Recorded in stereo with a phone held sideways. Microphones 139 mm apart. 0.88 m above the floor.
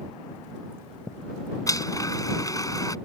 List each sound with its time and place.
1.7 s a blender: 25° left (ahead or behind)